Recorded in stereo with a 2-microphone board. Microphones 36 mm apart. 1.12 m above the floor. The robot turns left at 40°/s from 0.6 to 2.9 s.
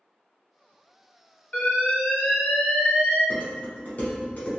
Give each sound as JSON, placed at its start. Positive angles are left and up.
{"t": 1.5, "sound": "an alarm", "azimuth_deg": 130, "distance_m": 1.3}
{"t": 3.3, "sound": "dishes clattering", "side_deg": 50, "distance_m": 1.6}